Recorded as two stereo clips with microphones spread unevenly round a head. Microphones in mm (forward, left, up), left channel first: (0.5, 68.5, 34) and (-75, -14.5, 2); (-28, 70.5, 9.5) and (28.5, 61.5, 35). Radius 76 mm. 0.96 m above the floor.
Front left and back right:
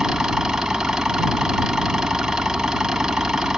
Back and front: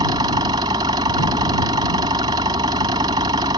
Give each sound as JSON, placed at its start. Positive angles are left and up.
{"t": 0.0, "sound": "an engine running", "azimuth_deg": -45}